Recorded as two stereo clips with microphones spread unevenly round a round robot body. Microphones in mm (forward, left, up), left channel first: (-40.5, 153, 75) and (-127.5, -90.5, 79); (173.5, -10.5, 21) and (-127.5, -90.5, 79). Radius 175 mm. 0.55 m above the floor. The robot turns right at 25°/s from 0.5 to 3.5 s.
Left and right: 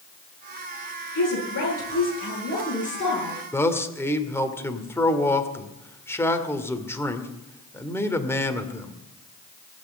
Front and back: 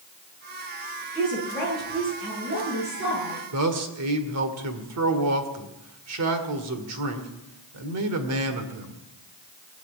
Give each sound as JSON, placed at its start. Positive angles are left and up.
{"t": 1.1, "sound": "a woman speaking", "azimuth_deg": 90, "distance_m": 10.0}
{"t": 3.5, "sound": "a man speaking", "azimuth_deg": 150, "distance_m": 2.0}